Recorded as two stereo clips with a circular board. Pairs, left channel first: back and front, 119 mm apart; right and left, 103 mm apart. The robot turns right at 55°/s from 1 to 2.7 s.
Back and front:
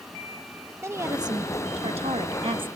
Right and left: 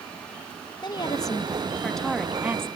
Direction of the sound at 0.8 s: 60° right.